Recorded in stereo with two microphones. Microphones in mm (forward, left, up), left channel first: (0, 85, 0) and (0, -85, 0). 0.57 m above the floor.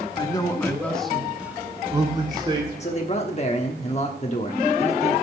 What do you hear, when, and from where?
0.2 s a man speaking: 25° left (ahead or behind), 1.2 m; by 2.7 s 30° right (ahead or behind), 1.9 m
2.8 s a man speaking: 40° left (ahead or behind), 1.2 m